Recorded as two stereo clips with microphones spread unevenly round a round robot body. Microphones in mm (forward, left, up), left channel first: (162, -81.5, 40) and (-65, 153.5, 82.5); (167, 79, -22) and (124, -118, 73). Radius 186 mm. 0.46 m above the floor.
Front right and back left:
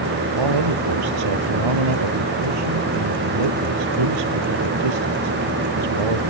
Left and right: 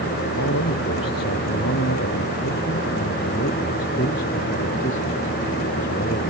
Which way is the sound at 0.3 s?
125° left.